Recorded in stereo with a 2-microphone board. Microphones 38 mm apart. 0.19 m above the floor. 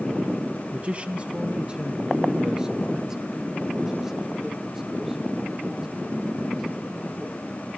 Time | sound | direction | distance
0.7 | a man speaking | 35° right (ahead or behind) | 1.7 m